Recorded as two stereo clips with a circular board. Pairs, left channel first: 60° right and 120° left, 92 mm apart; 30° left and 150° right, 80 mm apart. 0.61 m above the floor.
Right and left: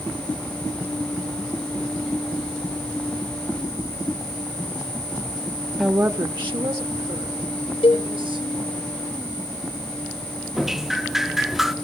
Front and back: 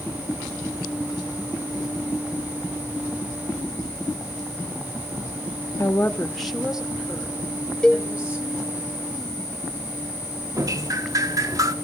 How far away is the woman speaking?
About 0.6 m.